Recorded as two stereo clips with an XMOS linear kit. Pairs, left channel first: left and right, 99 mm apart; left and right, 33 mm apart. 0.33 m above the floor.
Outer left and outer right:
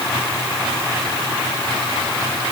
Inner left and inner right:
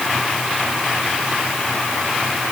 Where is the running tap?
I don't hear a running tap.